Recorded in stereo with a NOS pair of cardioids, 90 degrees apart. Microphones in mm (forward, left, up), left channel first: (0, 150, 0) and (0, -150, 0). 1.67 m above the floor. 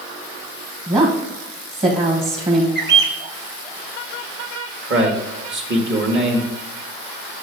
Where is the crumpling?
I don't hear crumpling.